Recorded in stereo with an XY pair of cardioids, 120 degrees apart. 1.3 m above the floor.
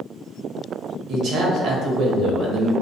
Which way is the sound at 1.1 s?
65° right.